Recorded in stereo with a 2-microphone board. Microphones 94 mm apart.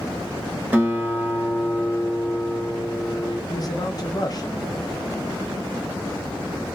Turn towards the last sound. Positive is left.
turn(degrees=45)  # may be behind; listen again after turning